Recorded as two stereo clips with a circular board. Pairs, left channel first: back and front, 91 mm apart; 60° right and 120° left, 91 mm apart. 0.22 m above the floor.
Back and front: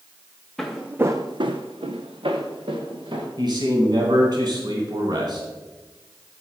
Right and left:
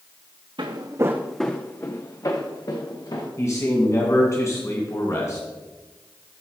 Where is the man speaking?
15° right, 2 m.